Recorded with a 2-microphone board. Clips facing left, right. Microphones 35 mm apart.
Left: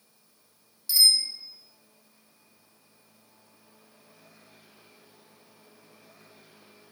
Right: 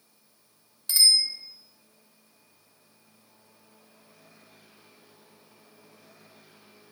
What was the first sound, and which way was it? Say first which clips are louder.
A bicycle bell: right 1 dB; 55° right (ahead or behind).